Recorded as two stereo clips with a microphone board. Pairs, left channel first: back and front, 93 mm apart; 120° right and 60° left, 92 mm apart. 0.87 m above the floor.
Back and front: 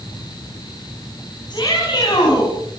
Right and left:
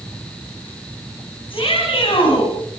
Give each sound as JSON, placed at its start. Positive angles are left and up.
{"t": 1.5, "sound": "a shout", "azimuth_deg": -140, "distance_m": 8.0}